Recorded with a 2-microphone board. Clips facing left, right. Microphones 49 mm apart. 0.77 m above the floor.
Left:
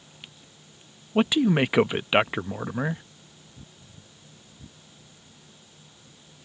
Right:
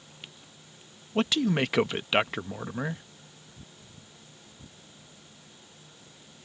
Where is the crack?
No crack in this recording.